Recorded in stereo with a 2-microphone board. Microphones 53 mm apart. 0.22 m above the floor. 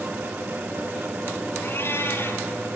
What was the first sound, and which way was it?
A cat meowing, 50° left (ahead or behind).